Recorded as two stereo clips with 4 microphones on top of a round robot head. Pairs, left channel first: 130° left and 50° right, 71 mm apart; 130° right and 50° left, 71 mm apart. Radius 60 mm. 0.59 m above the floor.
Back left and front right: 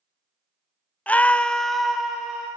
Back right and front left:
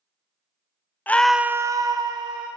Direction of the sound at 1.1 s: 175° right.